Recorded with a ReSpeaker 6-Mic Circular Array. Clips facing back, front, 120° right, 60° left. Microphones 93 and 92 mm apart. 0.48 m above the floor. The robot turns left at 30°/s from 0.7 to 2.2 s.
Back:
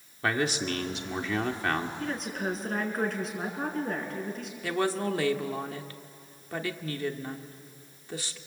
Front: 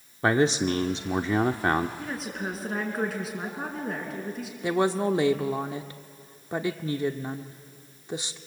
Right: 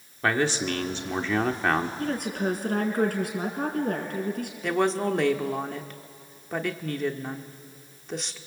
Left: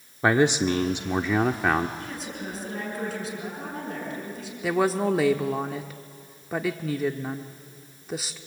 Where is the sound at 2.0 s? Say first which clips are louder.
Back 1 dB, right 7 dB; 80° right, 5 m; by 4.5 s 85° right, 5 m.